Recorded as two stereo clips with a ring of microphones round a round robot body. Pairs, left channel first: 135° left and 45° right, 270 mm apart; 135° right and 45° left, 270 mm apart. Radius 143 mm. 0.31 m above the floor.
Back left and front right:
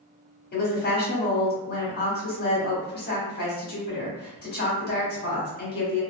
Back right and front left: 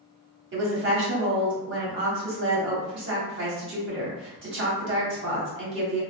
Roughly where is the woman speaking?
Left.